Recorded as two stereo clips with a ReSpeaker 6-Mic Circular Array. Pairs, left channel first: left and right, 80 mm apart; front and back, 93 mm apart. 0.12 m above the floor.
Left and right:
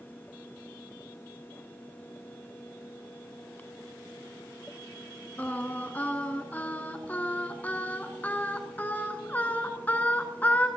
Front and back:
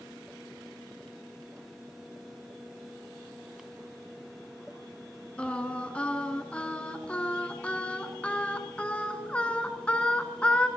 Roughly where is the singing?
Ahead left.